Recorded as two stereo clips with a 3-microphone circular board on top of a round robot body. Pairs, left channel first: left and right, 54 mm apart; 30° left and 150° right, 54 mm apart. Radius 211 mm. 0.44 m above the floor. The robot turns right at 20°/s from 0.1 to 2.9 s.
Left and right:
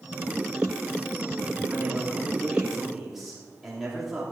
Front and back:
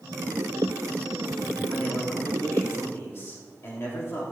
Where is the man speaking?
30° right, 2.5 m; by 4.2 s 5° right, 2.5 m.